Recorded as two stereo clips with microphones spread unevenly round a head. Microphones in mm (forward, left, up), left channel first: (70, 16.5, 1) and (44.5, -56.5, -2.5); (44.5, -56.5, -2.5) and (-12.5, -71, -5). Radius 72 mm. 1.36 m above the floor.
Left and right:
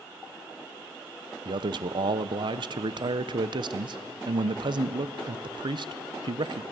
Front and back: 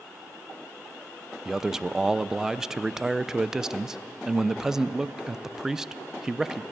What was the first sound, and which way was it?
A man speaking, 85° right.